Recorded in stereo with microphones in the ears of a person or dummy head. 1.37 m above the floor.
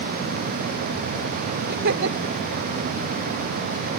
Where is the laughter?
55° right (ahead or behind).